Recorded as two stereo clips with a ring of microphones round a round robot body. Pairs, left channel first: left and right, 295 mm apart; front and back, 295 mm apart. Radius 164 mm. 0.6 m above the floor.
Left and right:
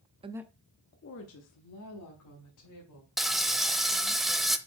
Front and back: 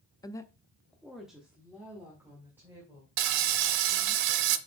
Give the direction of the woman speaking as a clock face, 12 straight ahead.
2 o'clock.